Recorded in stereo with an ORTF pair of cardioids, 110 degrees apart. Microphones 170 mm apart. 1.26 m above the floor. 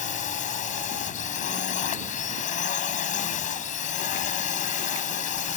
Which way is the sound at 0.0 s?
50° left.